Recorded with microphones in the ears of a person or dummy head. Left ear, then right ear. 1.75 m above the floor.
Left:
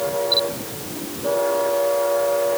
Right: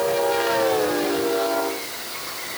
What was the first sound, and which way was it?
Only background noise.